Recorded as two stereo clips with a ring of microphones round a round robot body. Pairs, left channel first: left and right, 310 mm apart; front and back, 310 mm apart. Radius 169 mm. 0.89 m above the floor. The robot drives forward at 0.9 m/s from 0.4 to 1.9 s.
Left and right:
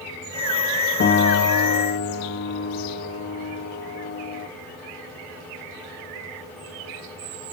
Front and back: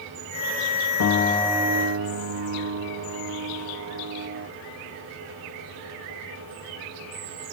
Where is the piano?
35° left, 0.6 m; by 4.5 s 140° left, 0.6 m.